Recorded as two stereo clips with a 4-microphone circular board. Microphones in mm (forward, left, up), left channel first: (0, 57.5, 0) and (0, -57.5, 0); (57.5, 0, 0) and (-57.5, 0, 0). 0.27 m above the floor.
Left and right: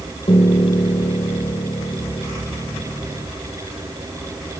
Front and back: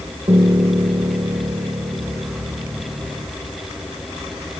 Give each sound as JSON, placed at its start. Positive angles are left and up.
{"t": 0.3, "sound": "a piano", "azimuth_deg": 130}